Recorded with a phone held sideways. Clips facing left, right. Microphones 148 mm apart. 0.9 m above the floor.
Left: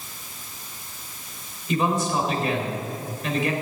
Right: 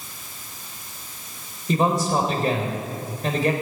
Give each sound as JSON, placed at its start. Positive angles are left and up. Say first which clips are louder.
{"t": 1.7, "sound": "a man speaking", "louder": "right 2 dB", "side_deg": -40, "distance_m": 3.5}